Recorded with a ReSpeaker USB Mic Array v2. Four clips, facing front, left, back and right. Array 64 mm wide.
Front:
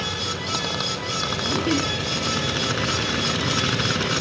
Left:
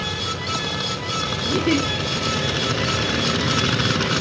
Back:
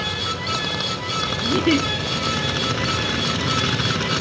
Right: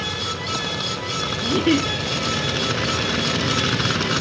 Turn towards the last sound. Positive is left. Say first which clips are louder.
# right 2 dB, back 5 dB
turn(degrees=-105)